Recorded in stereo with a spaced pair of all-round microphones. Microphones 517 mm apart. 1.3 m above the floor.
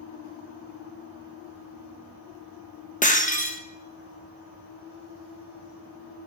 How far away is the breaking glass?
About 0.7 m.